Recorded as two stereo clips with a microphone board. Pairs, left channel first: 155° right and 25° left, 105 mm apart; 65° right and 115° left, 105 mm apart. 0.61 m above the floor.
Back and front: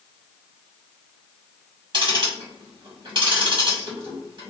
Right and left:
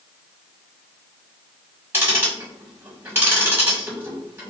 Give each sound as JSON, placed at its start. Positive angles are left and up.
{"t": 1.9, "sound": "ticking", "azimuth_deg": 50, "distance_m": 1.7}